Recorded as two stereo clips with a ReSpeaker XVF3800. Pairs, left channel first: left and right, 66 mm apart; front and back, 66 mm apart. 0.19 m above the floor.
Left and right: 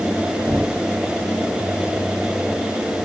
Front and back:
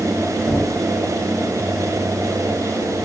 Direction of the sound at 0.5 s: 20° right.